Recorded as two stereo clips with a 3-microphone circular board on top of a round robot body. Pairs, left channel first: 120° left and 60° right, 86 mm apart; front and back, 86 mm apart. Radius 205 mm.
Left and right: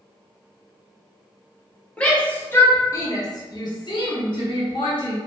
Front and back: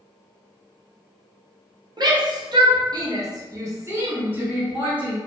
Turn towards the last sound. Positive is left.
turn(degrees=105)